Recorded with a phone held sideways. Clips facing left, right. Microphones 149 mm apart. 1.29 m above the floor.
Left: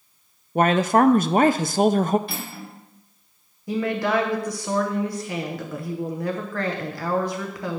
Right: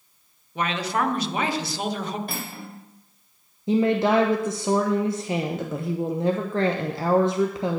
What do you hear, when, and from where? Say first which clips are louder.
0.6 s a woman speaking: left 8 dB; 50° left (ahead or behind), 0.5 m
2.3 s cutlery clinking: even; 50° right (ahead or behind), 3 m
3.7 s a woman speaking: right 4 dB; 25° right (ahead or behind), 0.8 m